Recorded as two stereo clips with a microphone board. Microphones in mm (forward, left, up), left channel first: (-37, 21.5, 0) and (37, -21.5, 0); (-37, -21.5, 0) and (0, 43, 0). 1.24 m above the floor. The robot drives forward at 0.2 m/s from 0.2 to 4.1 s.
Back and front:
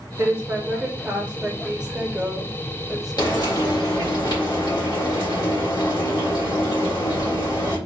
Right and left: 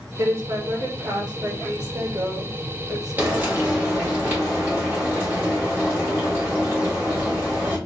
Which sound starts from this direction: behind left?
Frying, at 3.2 s.